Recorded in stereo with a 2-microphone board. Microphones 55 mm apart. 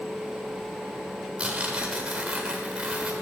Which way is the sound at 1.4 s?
20° right (ahead or behind).